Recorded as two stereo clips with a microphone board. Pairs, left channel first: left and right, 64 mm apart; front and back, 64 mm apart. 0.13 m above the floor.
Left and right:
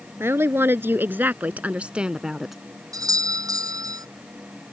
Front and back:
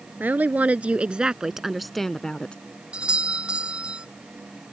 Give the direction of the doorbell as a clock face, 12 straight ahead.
4 o'clock.